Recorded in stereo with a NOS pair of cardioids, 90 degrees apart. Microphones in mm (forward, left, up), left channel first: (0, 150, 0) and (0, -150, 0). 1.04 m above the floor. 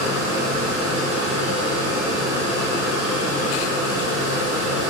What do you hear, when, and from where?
0.0 s a machine running: 55° right, 0.8 m